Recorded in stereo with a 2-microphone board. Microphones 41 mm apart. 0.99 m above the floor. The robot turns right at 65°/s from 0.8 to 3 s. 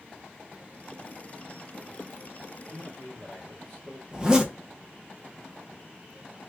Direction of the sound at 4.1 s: 20° right (ahead or behind).